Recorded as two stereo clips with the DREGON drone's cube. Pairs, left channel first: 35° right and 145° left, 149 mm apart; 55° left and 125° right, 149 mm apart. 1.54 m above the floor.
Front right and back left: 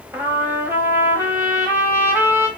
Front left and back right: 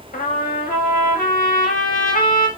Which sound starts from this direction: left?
A trumpet, at 0.1 s.